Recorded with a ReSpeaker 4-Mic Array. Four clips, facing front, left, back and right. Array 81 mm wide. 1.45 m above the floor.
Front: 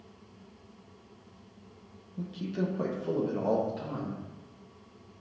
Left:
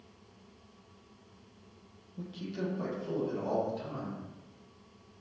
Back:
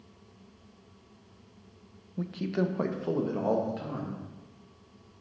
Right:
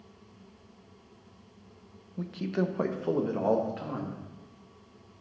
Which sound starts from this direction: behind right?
A man speaking, at 2.2 s.